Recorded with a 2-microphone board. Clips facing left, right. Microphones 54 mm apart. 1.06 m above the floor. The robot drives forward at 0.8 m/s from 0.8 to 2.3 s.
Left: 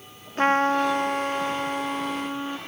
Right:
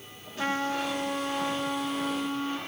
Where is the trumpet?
45° left (ahead or behind), 0.7 m; by 2.6 s 20° left (ahead or behind), 1.6 m.